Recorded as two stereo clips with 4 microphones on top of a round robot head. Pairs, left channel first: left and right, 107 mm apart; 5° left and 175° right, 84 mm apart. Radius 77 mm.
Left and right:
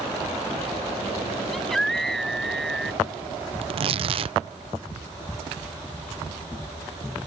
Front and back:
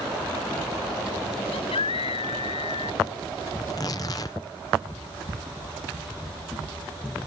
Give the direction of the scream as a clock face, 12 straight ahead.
12 o'clock.